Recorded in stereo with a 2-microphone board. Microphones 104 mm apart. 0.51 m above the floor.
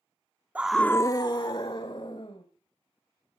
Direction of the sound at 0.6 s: 15° right (ahead or behind).